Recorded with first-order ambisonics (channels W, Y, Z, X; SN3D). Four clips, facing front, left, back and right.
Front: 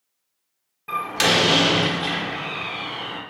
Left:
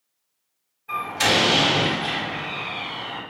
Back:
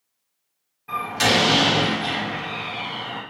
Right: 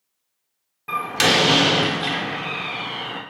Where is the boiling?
I don't hear boiling.